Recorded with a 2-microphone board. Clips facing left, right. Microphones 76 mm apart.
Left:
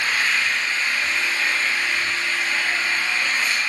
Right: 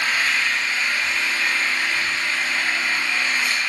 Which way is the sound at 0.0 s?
5° right (ahead or behind).